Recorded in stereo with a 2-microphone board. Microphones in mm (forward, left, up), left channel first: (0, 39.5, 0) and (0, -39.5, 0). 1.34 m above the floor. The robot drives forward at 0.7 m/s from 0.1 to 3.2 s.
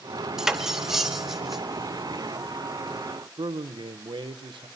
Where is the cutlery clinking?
5° right (ahead or behind), 0.9 m.